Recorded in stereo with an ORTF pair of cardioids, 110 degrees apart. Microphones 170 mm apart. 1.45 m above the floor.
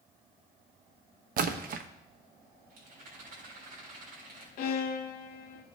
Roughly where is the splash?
Ahead right.